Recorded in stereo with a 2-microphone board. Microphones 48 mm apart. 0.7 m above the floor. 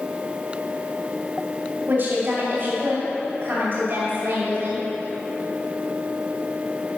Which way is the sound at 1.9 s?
45° right (ahead or behind).